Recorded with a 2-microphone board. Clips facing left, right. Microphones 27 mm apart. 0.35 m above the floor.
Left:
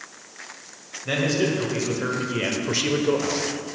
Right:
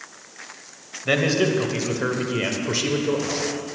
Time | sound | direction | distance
1.1 | a man speaking | 30° right (ahead or behind) | 1.5 m